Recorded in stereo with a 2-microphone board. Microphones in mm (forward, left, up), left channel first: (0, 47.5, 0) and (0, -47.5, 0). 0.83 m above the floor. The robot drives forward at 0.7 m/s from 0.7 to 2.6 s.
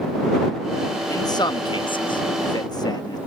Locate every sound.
1.1 s a man speaking: 35° left (ahead or behind); by 3.2 s 40° left (ahead or behind)